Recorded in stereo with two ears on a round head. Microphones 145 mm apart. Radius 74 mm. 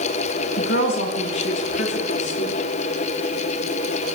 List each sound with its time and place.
0.6 s a woman speaking: 80° left, 5 m; by 2.5 s 85° left, 7.5 m